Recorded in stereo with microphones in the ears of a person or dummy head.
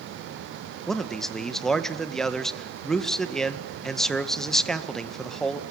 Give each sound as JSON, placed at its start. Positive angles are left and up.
{"t": 0.9, "sound": "a man speaking", "side_deg": 5, "distance_m": 1.8}